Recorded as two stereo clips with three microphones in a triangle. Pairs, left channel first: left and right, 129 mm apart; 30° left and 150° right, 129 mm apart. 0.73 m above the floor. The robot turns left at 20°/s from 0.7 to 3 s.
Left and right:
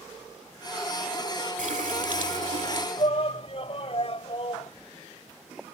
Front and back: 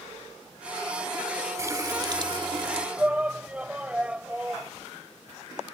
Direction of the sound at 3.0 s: 130° left.